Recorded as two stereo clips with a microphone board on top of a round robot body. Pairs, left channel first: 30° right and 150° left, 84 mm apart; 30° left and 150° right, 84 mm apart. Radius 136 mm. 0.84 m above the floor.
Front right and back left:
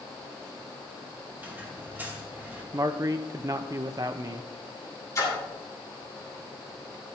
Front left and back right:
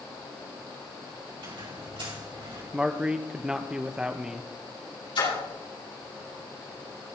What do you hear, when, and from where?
1.4 s a squeak: 145° right, 4.5 m
2.7 s a man speaking: 135° left, 1.0 m
5.2 s a splash: 20° left, 9 m